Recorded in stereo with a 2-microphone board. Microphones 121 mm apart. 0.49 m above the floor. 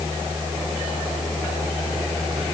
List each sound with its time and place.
Only background noise.